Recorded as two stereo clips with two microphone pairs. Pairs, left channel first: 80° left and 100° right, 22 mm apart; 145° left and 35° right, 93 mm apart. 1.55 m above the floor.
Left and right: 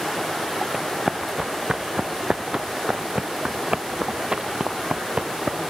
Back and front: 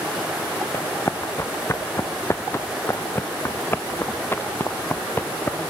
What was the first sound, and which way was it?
Running footsteps, 155° right.